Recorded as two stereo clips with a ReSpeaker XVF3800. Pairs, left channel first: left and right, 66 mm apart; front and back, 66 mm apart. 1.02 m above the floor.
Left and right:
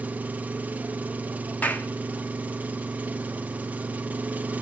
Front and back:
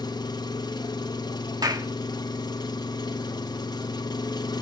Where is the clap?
155° left, 1.5 m.